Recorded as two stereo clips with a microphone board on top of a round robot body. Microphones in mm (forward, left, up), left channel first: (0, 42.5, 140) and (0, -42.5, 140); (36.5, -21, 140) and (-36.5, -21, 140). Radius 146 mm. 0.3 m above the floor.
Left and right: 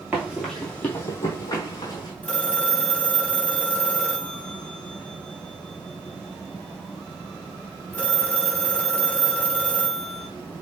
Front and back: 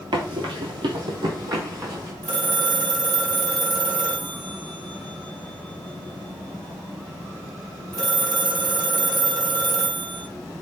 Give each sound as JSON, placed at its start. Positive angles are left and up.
{"t": 0.1, "sound": "running footsteps", "azimuth_deg": -160, "distance_m": 0.5}
{"t": 2.2, "sound": "a phone ringing", "azimuth_deg": 165, "distance_m": 1.5}